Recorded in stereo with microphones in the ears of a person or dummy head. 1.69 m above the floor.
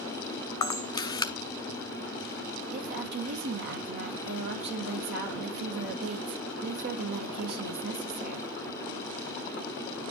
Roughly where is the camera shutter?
Left.